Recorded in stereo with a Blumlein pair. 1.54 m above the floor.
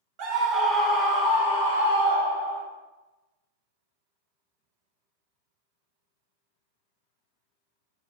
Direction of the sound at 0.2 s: 40° right.